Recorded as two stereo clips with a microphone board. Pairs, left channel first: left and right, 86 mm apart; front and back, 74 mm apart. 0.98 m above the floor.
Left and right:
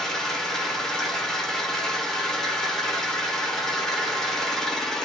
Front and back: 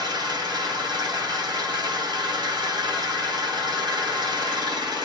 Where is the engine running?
175° left, 0.9 m.